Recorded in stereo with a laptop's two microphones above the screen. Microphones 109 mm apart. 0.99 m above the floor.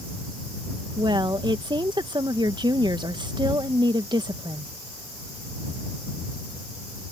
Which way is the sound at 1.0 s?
45° right (ahead or behind).